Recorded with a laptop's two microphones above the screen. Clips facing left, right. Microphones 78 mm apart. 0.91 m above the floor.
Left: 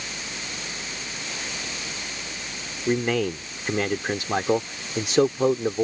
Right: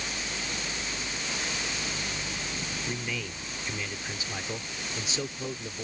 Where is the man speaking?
70° left (ahead or behind).